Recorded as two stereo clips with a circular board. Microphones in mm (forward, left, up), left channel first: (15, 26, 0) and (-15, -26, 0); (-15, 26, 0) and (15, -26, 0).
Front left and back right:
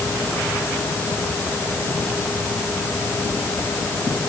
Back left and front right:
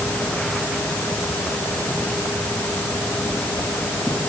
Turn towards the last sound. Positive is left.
No sound to turn to.